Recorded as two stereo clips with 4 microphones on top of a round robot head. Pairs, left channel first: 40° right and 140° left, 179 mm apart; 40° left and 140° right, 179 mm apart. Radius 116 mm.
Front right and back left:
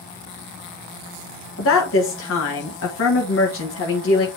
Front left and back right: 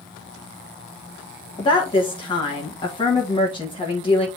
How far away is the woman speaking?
About 1.5 m.